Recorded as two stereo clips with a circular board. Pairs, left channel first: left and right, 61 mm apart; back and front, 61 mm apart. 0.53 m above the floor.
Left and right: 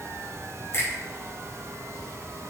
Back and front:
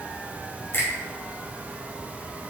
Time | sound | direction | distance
0.7 | a finger snap | 130° left | 3 m